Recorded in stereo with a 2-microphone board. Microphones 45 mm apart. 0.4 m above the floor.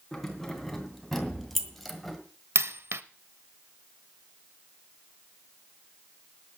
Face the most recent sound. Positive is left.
turn(degrees=-65)  # may be behind; listen again after turning